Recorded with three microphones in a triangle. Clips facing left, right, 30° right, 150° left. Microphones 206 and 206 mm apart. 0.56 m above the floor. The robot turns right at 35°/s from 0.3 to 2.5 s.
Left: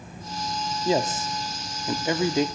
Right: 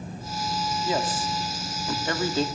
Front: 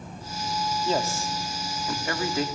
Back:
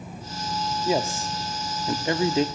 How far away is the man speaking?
About 0.7 m.